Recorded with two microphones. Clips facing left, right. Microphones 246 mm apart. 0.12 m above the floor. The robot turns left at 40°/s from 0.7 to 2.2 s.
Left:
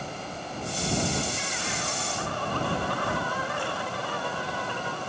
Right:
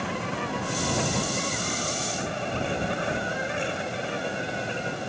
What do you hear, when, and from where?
0.0 s an insect: 100° right; by 5.1 s 160° right